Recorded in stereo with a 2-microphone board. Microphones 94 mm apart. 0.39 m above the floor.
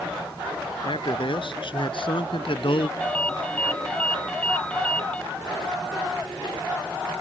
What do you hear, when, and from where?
0.8 s a man speaking: 60° left (ahead or behind); by 2.9 s 70° left (ahead or behind)
3.0 s a ringtone: 15° left (ahead or behind)